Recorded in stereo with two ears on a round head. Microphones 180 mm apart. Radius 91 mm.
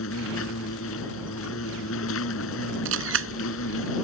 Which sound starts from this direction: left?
An insect, at 0.0 s.